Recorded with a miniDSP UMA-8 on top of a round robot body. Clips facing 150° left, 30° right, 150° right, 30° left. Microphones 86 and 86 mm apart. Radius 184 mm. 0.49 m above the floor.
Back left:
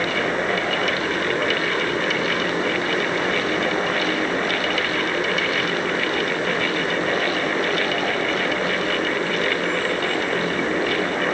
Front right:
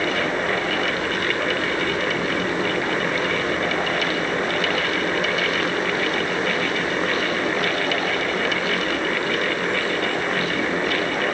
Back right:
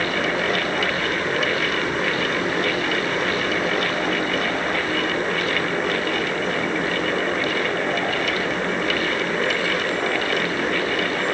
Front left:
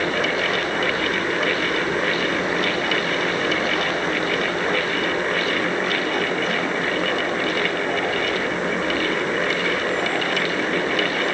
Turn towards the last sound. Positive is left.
No sound to turn to.